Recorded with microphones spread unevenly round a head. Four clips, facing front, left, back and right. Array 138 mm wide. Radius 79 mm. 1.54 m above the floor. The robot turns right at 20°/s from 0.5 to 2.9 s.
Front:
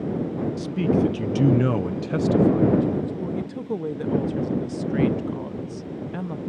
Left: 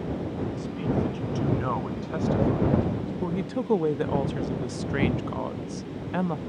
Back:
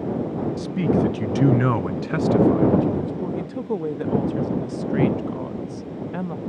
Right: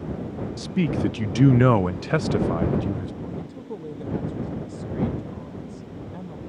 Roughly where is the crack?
I don't hear a crack.